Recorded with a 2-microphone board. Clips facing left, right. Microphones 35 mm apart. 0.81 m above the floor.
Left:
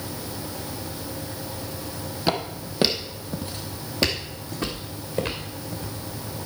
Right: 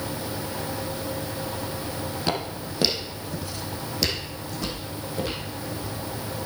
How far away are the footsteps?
About 1.6 m.